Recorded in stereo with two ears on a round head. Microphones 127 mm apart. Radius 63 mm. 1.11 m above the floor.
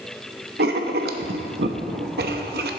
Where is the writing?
80° right, 0.9 m.